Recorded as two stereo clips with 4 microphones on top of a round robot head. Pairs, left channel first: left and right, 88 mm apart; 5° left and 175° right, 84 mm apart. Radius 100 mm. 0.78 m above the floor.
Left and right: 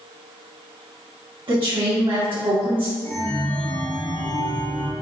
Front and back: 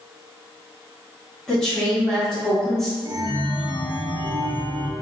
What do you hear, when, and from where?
1.5 s a woman speaking: 75° right, 1.6 m
3.0 s a chime: 165° left, 1.0 m